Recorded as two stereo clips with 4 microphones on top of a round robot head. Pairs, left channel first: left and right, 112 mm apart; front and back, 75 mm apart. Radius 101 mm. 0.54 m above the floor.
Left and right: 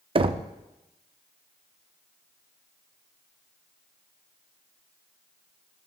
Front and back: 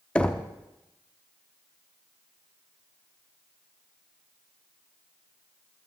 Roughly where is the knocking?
Right.